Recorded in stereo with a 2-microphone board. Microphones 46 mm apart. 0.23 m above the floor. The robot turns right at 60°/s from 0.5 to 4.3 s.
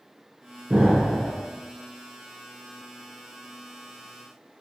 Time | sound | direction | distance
0.7 | an explosion | 20° right | 0.7 m